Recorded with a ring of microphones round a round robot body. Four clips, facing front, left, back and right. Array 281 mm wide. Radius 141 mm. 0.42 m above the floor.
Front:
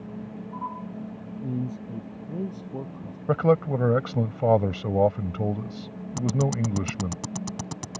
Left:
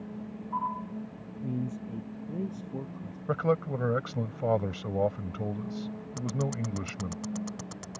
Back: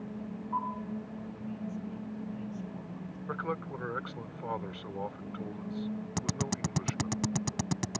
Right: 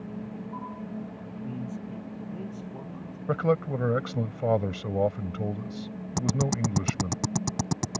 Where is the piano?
I don't hear a piano.